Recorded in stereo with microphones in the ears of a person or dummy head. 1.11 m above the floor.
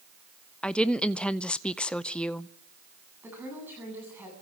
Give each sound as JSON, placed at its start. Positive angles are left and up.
{"t": 0.6, "sound": "a woman speaking", "side_deg": 5, "distance_m": 0.6}
{"t": 3.2, "sound": "a woman speaking", "side_deg": -10, "distance_m": 8.0}